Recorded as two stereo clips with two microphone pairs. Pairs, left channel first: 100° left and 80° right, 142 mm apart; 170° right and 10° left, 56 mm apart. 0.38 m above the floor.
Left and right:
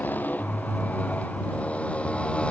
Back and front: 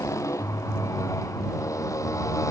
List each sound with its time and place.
0.0 s a motorcycle: 175° left; by 2.5 s straight behind